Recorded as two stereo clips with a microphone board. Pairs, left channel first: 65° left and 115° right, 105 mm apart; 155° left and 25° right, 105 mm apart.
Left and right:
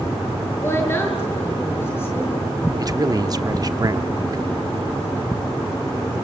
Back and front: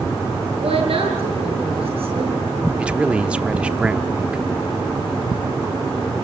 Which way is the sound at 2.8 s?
95° right.